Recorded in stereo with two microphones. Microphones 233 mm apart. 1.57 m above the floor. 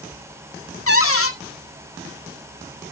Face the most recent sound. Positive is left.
turn(degrees=85)